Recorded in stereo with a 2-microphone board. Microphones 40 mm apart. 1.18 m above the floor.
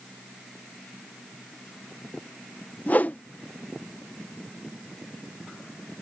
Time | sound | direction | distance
2.9 | a whoosh | 40° left (ahead or behind) | ?